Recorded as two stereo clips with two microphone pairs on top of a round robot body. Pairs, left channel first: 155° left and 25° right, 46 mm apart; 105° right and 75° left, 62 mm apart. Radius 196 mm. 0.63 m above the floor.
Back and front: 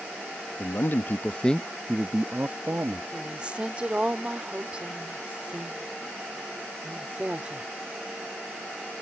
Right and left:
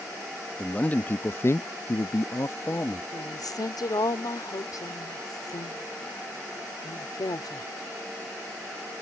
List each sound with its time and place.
0.6 s a man speaking: 175° right; by 3.0 s 50° right
3.1 s a woman speaking: 90° right